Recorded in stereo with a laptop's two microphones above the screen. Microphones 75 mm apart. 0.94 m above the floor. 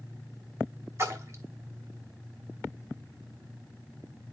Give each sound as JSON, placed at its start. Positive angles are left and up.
{"t": 1.0, "sound": "a splash", "side_deg": -35, "distance_m": 0.9}